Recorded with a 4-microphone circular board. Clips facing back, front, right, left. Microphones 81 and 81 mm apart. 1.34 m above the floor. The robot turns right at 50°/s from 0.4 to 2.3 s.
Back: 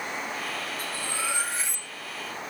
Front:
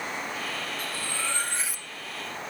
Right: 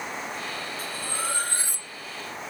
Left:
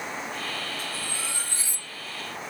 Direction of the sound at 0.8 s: 130° right.